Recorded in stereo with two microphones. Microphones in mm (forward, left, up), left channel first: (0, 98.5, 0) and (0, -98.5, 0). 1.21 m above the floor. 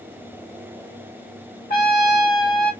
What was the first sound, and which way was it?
A trumpet, 50° left (ahead or behind).